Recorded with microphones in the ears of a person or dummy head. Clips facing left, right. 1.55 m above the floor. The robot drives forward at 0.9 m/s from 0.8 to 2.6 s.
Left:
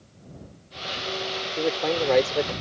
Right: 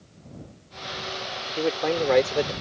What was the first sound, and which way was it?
A man speaking, 5° right (ahead or behind).